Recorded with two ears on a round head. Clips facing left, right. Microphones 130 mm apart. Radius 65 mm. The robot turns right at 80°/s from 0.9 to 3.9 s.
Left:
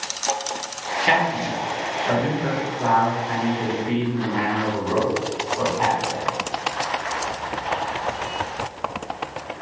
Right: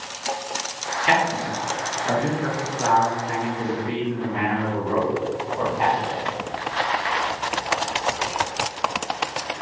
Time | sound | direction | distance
1.0 | a man speaking | 50° left (ahead or behind) | 1.6 m